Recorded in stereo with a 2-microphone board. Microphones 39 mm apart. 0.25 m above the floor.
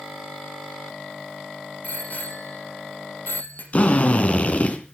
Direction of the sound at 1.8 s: 45° left (ahead or behind).